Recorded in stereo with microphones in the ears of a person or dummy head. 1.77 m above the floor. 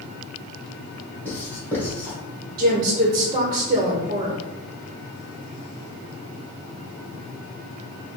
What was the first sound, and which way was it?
Writing, 5° left (ahead or behind).